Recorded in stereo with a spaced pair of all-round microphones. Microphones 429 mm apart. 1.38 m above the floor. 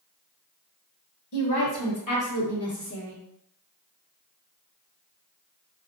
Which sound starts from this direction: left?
A woman speaking, at 1.3 s.